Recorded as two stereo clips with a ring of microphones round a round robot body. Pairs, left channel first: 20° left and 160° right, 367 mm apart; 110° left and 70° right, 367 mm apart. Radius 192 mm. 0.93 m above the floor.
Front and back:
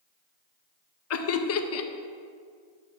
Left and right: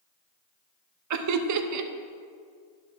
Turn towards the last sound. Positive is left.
turn(degrees=-25)